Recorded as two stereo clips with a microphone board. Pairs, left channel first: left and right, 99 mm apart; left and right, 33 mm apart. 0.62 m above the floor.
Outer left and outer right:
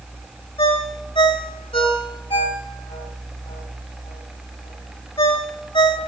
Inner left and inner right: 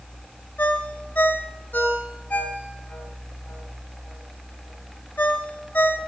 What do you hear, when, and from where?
0.6 s a ringtone: 65° left (ahead or behind), 1.6 m